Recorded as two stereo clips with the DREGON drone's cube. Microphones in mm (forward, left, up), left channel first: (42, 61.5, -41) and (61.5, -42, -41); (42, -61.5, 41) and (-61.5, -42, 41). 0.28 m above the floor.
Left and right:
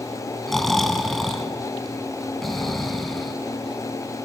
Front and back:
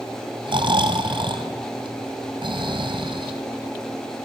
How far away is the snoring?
About 2.5 m.